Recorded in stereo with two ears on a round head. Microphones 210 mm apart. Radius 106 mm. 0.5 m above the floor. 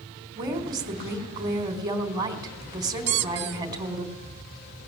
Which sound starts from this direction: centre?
A woman speaking, at 0.4 s.